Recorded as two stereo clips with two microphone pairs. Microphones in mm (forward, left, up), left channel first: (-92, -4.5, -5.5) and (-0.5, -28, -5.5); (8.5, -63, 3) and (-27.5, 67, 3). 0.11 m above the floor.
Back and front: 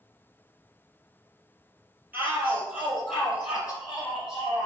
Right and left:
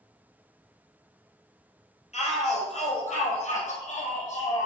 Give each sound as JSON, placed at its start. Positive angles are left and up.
{"t": 2.1, "sound": "a shout", "azimuth_deg": -85, "distance_m": 2.5}